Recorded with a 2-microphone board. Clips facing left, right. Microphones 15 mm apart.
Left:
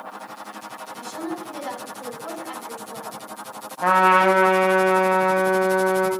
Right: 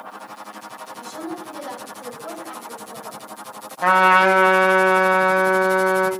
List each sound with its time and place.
0.9 s a woman speaking: 60° left (ahead or behind), 3.5 m
3.8 s a trumpet: 20° right (ahead or behind), 0.9 m